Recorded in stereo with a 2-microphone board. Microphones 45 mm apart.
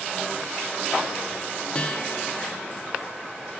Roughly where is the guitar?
Left.